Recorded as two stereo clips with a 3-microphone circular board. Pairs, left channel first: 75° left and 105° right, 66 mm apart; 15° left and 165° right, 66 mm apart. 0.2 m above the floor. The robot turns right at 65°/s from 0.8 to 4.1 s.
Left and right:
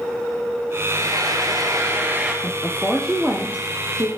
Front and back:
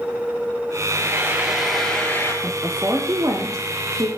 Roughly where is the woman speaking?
Behind left.